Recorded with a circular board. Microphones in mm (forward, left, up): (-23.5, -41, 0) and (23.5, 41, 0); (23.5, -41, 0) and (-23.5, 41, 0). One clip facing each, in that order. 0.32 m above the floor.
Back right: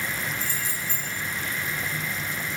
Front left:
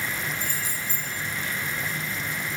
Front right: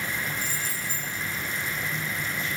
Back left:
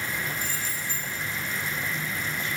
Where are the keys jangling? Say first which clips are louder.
Even, even; 10° right, 10 m.